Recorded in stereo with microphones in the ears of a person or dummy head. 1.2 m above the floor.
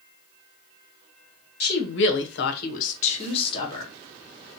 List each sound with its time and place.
1.6 s a woman speaking: 50° left (ahead or behind), 0.7 m; by 3.9 s 25° left (ahead or behind), 1.1 m